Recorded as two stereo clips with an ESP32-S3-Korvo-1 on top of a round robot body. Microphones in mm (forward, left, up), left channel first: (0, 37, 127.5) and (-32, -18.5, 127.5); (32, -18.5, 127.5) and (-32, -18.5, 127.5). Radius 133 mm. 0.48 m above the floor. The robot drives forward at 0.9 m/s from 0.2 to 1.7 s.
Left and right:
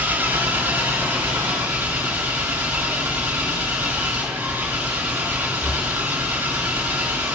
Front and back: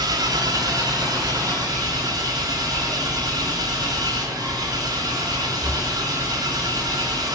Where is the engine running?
Straight behind, 1.5 m.